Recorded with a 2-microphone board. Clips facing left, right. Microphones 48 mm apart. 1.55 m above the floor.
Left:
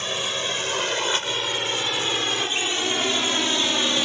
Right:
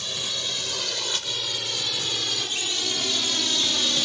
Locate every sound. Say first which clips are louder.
0.0 s a drone: left 5 dB; 40° left (ahead or behind); by 4.0 s 30° left (ahead or behind)